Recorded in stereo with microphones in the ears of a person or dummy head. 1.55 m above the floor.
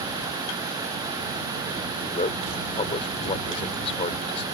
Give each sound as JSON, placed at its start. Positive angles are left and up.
{"t": 2.0, "sound": "a man speaking", "side_deg": 35}